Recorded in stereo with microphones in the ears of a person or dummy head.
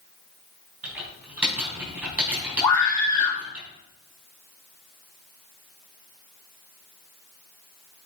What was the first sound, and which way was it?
Typing on a keyboard, 5° right (ahead or behind).